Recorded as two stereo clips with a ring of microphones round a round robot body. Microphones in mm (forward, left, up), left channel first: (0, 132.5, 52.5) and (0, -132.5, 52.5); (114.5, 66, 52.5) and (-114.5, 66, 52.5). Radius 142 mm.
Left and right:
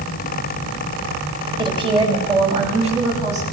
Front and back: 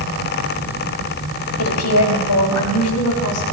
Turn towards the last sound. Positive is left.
turn(degrees=-25)